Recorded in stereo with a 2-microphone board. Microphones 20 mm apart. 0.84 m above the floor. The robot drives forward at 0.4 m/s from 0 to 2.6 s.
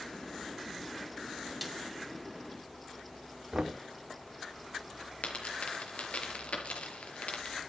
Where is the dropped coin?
80° left, 4.5 m.